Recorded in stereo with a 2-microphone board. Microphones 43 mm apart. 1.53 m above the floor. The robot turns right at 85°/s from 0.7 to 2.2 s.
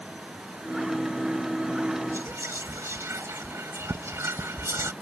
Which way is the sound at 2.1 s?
75° right (ahead or behind).